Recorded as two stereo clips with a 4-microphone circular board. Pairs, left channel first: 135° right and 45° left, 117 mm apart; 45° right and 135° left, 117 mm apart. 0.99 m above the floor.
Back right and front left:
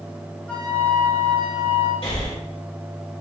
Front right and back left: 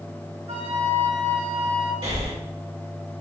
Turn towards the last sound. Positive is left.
turn(degrees=180)